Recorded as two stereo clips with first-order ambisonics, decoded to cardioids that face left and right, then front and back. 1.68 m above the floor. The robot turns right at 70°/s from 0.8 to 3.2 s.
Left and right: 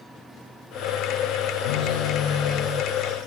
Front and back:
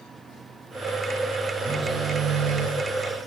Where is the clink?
I don't hear a clink.